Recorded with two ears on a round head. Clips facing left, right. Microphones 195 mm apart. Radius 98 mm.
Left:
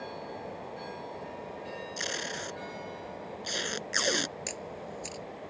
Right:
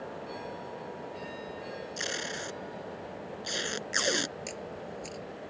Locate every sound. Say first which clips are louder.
2.0 s tape being pulled: even; centre (ahead or behind)
4.5 s a camera shutter: even; 20° left (ahead or behind)